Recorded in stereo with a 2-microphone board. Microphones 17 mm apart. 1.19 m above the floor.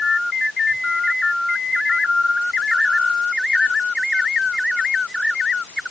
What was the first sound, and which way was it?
Only background noise.